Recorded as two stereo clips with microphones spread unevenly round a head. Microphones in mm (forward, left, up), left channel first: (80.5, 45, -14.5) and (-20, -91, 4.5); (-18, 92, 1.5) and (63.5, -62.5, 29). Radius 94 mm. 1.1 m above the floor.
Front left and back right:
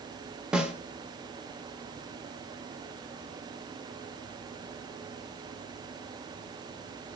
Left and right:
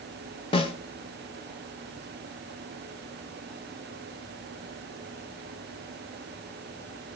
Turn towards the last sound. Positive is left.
turn(degrees=165)